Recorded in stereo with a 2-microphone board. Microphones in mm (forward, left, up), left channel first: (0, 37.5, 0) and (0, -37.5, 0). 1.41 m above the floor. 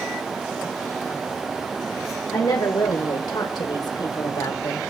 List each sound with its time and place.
2.3 s a woman speaking: 60° left (ahead or behind), 1.4 m; by 4.8 s 55° left (ahead or behind), 1.8 m